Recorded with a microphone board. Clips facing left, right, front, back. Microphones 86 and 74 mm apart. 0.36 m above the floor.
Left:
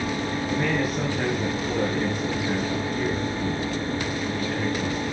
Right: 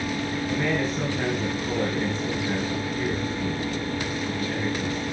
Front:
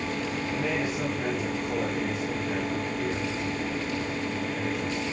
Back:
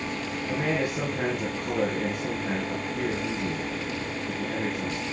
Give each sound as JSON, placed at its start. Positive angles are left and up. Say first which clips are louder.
{"t": 0.5, "sound": "a man speaking", "louder": "left 1 dB, back 4 dB", "azimuth_deg": 170, "distance_m": 6.0}